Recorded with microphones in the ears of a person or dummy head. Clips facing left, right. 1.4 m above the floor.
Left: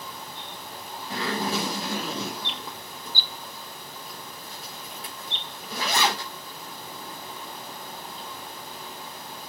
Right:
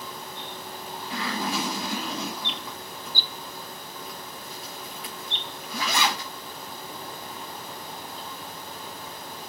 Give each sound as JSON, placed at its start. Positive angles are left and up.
{"t": 1.1, "sound": "a zipper", "side_deg": 35, "distance_m": 3.0}